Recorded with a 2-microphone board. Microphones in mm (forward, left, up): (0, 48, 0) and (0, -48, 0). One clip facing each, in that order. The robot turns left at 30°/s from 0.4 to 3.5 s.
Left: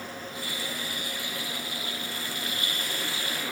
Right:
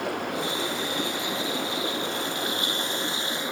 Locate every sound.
0.0 s running water: 70° right; by 3.5 s 160° right